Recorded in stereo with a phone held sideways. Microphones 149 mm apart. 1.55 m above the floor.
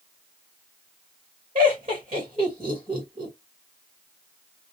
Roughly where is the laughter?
Right.